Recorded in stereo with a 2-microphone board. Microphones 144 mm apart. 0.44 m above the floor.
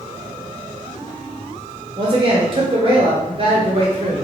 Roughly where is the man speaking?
Right.